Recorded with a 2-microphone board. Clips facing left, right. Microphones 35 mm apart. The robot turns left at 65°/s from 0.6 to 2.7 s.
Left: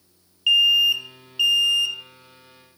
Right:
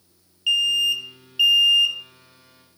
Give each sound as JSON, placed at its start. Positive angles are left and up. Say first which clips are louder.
{"t": 0.5, "sound": "an alarm", "louder": "left 3 dB", "azimuth_deg": 40, "distance_m": 1.0}